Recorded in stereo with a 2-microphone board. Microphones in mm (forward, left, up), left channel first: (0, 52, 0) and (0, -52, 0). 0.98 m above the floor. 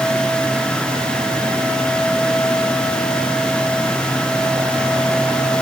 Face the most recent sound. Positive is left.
No sound to turn to.